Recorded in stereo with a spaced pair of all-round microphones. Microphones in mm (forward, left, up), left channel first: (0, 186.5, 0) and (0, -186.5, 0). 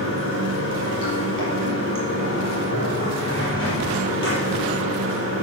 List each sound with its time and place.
0.0 s running water: 35° left (ahead or behind), 5 m